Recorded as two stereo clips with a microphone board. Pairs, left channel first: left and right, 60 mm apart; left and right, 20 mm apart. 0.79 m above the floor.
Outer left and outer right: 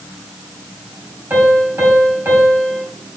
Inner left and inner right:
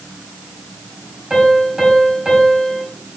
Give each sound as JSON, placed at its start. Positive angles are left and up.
{"t": 1.3, "sound": "a piano", "side_deg": -40, "distance_m": 5.0}